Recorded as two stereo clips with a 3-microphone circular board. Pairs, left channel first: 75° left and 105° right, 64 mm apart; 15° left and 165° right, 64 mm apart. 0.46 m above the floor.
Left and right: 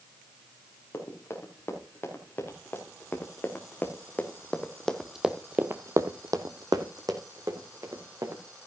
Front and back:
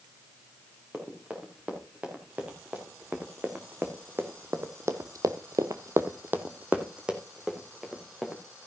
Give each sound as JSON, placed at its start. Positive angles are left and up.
{"t": 0.9, "sound": "running footsteps", "azimuth_deg": 125, "distance_m": 4.5}